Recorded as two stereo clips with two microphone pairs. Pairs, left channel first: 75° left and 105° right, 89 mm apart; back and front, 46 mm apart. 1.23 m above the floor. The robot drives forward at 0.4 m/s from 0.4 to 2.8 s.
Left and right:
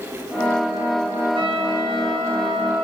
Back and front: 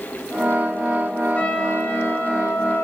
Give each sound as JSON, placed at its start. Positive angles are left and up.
{"t": 1.4, "sound": "a trumpet", "azimuth_deg": -125, "distance_m": 1.8}